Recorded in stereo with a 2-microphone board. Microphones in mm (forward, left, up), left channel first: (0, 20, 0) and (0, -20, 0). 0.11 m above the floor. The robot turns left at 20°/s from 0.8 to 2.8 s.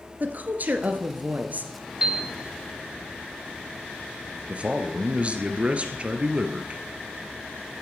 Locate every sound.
0.2 s a woman speaking: 45° right (ahead or behind), 1.5 m; by 1.9 s 40° right (ahead or behind), 1.5 m
2.0 s a piano: 15° right (ahead or behind), 1.9 m
4.5 s a man speaking: 35° right (ahead or behind), 1.4 m